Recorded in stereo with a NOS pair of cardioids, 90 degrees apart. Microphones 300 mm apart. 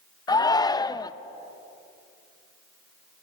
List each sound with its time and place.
0.3 s a shout: 15° left, 0.7 m